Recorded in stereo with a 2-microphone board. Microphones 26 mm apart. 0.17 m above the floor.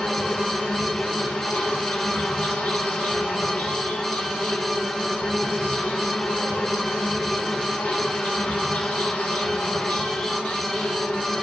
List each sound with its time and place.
0.0 s an insect: 65° left (ahead or behind), 8 m